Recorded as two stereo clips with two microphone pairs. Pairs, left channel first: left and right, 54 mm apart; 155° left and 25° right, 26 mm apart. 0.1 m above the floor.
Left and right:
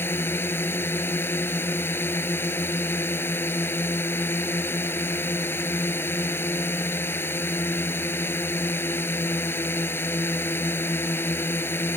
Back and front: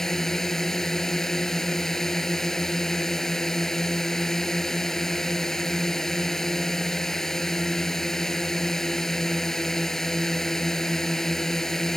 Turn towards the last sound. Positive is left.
turn(degrees=85)